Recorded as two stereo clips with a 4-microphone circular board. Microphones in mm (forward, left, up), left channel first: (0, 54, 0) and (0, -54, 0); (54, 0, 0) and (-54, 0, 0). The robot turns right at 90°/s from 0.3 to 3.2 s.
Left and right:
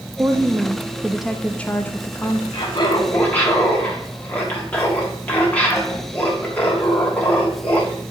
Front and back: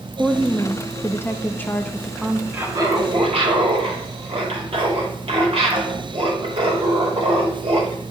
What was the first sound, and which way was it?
A woman speaking, 85° right.